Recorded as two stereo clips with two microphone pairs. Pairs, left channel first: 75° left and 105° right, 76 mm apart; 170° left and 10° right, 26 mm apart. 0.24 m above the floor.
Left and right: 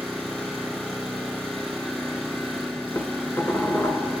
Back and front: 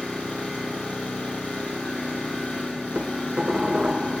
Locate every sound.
0.0 s an engine running: 160° left, 6 m
3.0 s dishes clattering: 30° left, 1.5 m